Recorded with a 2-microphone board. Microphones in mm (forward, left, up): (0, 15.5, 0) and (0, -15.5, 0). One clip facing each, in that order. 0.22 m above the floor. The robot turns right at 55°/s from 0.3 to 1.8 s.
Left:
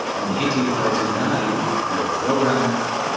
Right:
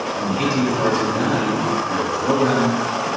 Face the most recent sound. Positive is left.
turn(degrees=-115)